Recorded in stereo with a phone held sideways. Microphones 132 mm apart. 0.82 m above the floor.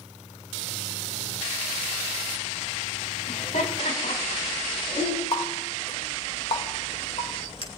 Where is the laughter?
65° left (ahead or behind), 7 m; by 5.2 s 80° left, 8.5 m.